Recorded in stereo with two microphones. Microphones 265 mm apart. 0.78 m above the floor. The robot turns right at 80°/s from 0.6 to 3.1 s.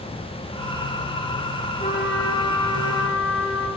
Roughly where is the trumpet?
Ahead left.